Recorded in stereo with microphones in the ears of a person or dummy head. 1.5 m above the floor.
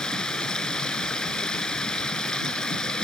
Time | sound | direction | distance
0.0 | running water | 5° left (ahead or behind) | ?